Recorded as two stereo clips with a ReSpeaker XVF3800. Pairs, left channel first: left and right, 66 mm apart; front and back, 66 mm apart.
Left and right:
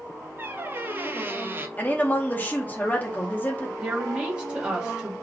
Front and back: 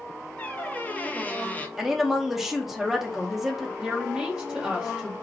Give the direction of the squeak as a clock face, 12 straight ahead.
2 o'clock.